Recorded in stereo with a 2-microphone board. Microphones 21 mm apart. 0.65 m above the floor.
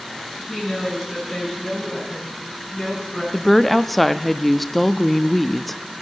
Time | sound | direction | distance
0.5 | a woman speaking | 25° right (ahead or behind) | 6 m
3.3 | a woman speaking | 5° left (ahead or behind) | 0.6 m